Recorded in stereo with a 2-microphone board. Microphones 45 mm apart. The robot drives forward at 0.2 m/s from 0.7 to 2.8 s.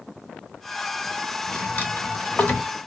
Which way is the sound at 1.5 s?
40° left (ahead or behind).